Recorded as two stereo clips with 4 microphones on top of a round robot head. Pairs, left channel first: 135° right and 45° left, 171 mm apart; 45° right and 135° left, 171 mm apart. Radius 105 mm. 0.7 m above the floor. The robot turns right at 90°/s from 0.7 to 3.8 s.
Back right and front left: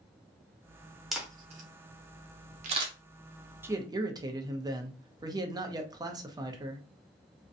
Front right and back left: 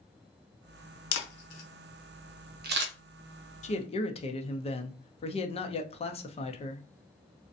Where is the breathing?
I don't hear breathing.